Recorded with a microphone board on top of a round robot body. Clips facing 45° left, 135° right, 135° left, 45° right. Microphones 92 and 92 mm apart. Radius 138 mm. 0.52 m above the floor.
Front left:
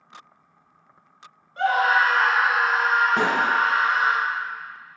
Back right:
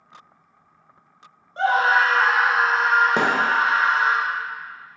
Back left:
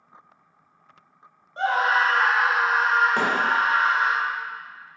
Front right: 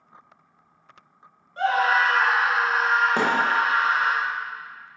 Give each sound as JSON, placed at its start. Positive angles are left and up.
{"t": 1.6, "sound": "a scream", "azimuth_deg": 180, "distance_m": 1.0}
{"t": 3.2, "sound": "a thud", "azimuth_deg": -120, "distance_m": 0.8}